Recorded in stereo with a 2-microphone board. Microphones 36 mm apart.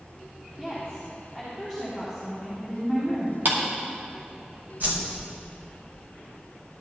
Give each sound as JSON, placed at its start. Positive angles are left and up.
{"t": 0.6, "sound": "a woman speaking", "side_deg": -10, "distance_m": 3.0}
{"t": 3.5, "sound": "a clap", "side_deg": -70, "distance_m": 2.5}
{"t": 4.8, "sound": "a whoosh", "side_deg": -55, "distance_m": 3.0}